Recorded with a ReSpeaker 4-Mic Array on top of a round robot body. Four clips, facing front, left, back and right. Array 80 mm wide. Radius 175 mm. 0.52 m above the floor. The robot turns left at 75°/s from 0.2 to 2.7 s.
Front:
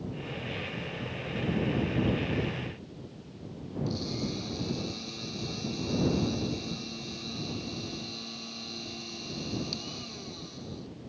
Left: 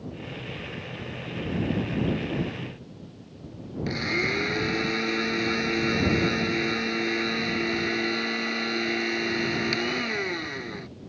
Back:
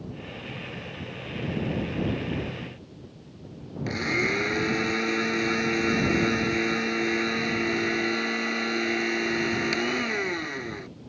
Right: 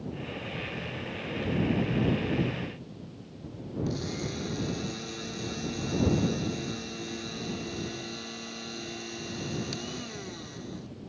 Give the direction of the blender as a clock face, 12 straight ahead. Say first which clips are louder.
Left 9 dB, back 9 dB; 7 o'clock.